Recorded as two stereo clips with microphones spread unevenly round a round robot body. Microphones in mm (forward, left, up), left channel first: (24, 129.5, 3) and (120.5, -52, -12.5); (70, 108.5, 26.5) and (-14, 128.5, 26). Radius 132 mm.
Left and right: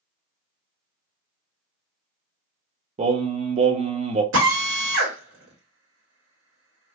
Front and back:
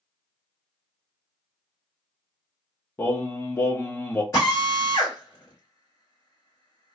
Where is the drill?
85° right, 1.4 m.